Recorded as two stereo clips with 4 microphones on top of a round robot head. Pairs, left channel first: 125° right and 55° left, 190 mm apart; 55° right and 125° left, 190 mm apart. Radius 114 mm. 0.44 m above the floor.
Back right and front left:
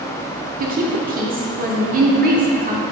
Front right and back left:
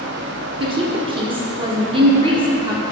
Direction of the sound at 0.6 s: 70° left.